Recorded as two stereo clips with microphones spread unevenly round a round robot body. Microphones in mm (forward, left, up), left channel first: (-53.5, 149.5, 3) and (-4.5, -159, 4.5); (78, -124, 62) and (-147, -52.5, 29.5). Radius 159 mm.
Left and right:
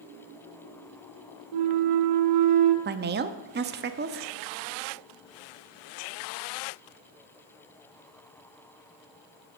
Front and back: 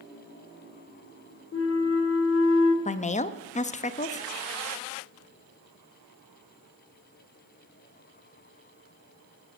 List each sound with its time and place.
1.5 s a flute: 55° right, 1.0 m
2.9 s a woman speaking: 70° right, 0.6 m